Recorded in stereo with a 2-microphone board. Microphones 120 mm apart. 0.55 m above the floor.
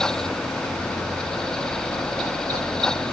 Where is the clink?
No clink in this recording.